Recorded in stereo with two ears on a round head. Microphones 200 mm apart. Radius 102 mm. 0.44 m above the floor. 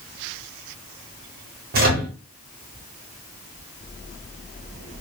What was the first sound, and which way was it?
A microwave, 45° right (ahead or behind).